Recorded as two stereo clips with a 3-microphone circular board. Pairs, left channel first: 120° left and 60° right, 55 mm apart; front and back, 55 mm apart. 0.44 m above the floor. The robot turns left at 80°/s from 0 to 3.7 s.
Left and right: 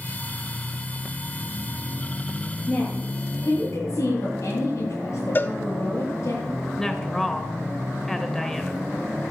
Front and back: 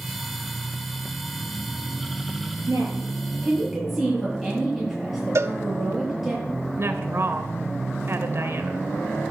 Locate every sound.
2.7 s a woman speaking: 175° left, 8.5 m; by 6.3 s 95° left, 8.5 m
5.3 s a cowbell: 165° left, 0.9 m
6.8 s a woman speaking: 160° right, 1.6 m